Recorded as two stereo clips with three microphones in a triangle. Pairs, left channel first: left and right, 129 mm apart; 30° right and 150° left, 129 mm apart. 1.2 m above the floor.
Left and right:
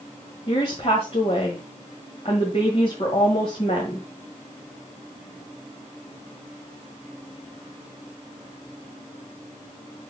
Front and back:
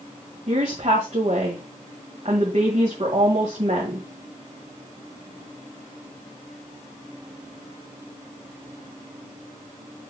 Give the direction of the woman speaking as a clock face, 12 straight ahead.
8 o'clock.